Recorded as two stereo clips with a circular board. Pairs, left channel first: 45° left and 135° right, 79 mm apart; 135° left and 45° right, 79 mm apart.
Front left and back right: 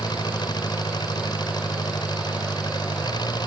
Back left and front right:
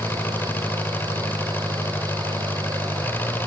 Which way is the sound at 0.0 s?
70° left.